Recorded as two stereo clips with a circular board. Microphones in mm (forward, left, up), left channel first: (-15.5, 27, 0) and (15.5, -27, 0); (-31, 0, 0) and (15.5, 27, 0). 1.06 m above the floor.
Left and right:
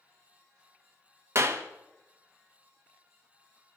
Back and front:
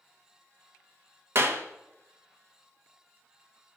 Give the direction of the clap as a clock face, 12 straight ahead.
12 o'clock.